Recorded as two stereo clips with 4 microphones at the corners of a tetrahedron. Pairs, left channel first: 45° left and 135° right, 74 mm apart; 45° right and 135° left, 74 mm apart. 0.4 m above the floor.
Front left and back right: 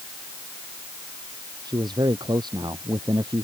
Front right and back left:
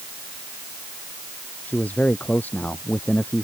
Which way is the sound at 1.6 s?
115° right.